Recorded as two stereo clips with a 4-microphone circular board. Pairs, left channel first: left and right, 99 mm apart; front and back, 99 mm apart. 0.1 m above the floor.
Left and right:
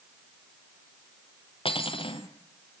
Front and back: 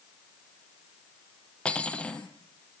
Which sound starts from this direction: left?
Cutlery clinking, at 1.6 s.